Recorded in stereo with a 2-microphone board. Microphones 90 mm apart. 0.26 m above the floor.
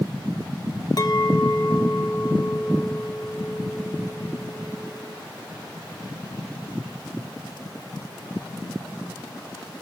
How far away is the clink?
About 1.1 m.